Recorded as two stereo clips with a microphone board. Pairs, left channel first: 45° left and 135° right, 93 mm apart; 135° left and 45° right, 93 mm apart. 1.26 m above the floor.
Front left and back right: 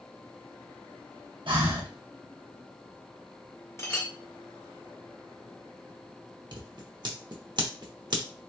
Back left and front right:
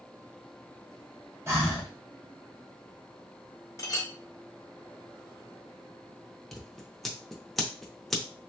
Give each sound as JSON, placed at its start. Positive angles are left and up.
{"t": 1.5, "sound": "breathing", "azimuth_deg": -110, "distance_m": 1.0}
{"t": 3.8, "sound": "a clink", "azimuth_deg": 95, "distance_m": 0.7}
{"t": 6.5, "sound": "scissors", "azimuth_deg": -140, "distance_m": 0.7}